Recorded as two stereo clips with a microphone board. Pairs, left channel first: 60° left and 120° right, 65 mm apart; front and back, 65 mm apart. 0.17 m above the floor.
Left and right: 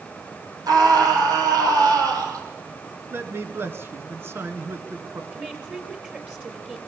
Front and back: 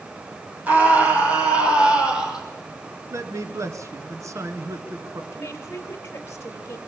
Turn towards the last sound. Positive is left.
turn(degrees=-50)